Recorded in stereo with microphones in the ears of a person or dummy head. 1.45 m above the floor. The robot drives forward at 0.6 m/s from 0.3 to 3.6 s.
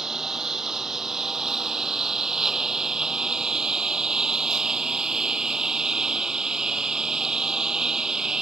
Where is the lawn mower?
5° right (ahead or behind).